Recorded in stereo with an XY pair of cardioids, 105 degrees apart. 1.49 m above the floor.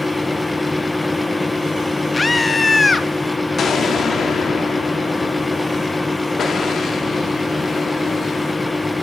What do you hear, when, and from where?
0.0 s a fan: 15° left, 1.8 m
2.1 s a scream: 25° left, 2 m
3.6 s an explosion: 40° left, 4 m